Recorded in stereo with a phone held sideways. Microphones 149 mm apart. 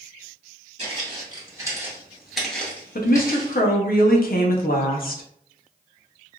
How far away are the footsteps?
About 1.5 m.